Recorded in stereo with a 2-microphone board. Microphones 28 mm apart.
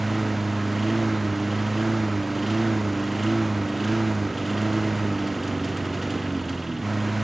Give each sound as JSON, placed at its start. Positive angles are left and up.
{"t": 0.0, "sound": "a lawn mower", "side_deg": -5}